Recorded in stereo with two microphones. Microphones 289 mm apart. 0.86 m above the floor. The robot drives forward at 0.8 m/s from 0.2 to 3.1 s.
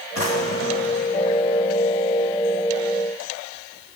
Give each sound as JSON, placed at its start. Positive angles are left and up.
{"t": 0.1, "sound": "a drawer", "side_deg": 65, "distance_m": 1.8}